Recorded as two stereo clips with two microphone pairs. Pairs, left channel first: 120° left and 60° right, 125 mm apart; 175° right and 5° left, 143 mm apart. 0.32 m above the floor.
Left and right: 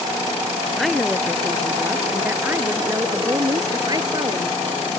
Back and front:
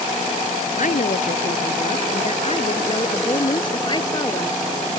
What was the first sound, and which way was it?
A woman speaking, 150° right.